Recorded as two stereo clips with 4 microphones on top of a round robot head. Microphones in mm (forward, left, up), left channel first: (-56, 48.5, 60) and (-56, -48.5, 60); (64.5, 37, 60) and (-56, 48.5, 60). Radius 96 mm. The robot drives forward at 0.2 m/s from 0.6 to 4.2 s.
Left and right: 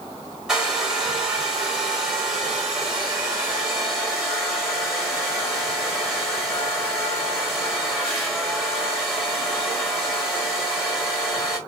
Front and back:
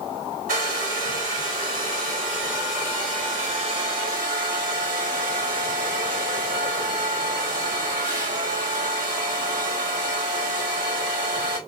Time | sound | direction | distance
0.5 | a hair dryer | 175° right | 1.5 m